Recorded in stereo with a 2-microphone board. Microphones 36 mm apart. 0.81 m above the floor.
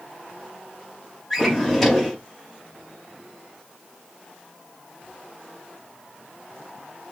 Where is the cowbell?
I don't hear a cowbell.